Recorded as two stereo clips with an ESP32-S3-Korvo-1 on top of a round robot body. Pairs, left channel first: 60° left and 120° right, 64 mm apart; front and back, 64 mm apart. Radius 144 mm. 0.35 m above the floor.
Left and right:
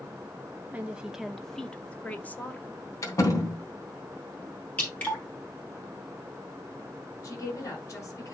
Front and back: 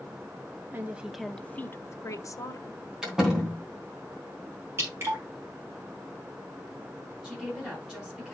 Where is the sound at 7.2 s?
100° left, 6 m.